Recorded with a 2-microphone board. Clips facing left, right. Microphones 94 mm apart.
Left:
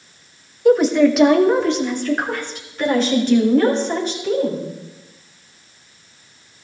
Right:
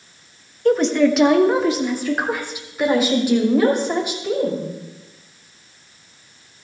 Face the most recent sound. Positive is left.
turn(degrees=-15)  # may be behind; listen again after turning